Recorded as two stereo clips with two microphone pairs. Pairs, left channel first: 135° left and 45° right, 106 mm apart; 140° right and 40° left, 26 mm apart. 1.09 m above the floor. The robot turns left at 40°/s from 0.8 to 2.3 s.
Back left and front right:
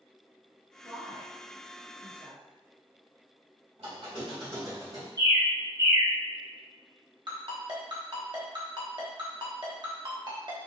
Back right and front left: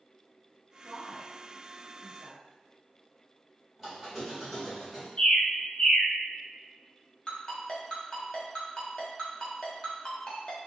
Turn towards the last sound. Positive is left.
turn(degrees=-85)